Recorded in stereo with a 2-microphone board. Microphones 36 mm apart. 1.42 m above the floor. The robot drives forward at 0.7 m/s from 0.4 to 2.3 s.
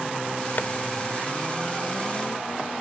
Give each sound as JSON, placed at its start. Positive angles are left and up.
{"t": 0.6, "sound": "tapping", "side_deg": 55}